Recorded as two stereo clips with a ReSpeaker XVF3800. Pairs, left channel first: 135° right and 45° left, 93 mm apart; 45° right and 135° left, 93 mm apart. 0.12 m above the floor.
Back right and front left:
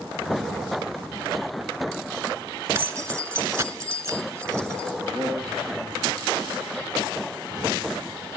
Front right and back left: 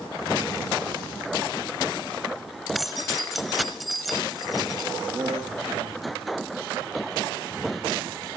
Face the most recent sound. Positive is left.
turn(degrees=175)